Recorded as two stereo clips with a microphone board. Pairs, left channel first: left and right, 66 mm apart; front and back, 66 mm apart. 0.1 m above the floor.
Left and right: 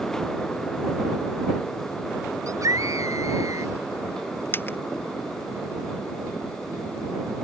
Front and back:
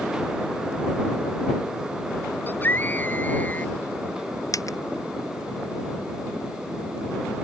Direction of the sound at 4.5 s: 35° left.